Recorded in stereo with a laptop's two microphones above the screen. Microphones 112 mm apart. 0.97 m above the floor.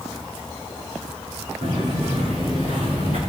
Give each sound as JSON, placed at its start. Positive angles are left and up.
{"t": 1.6, "sound": "footsteps", "side_deg": -80, "distance_m": 6.0}